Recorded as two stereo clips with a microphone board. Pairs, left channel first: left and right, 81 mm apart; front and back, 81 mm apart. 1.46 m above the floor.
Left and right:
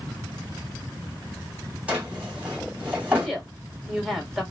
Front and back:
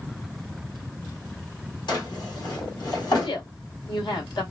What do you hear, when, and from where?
1.9 s a drawer: 20° right, 2.5 m
3.2 s a woman speaking: 5° right, 1.8 m